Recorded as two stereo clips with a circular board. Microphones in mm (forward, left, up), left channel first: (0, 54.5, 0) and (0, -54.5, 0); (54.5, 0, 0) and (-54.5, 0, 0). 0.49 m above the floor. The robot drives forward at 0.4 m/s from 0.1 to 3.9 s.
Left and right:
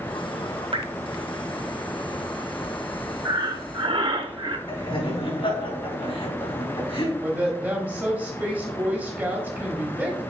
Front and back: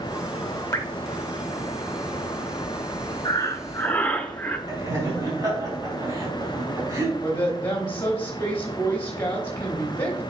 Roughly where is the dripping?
Ahead right.